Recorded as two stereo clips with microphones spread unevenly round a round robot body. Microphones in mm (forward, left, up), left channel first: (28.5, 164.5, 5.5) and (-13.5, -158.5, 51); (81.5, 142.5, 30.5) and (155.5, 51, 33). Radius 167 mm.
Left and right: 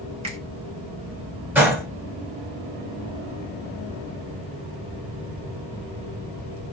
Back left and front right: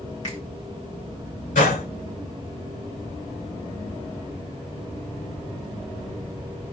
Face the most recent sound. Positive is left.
turn(degrees=175)